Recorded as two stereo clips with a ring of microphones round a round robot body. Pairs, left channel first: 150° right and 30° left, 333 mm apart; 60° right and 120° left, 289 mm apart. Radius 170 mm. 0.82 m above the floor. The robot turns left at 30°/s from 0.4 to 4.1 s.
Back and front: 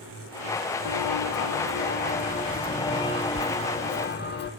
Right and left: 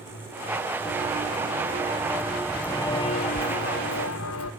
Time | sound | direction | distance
0.8 | footsteps | 155° right | 1.2 m